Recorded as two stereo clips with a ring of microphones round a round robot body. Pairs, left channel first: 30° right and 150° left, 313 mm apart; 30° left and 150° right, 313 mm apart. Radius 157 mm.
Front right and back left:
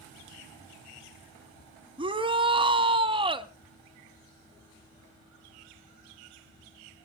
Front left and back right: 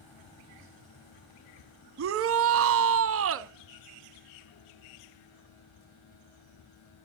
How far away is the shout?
About 0.8 m.